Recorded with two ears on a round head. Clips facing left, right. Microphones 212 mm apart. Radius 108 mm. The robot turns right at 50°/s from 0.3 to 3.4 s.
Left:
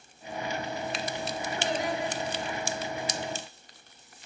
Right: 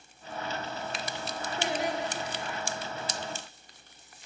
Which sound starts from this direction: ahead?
Singing, at 1.6 s.